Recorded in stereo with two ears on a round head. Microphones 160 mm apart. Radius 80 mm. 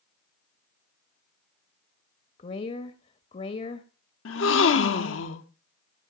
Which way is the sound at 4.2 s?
80° left.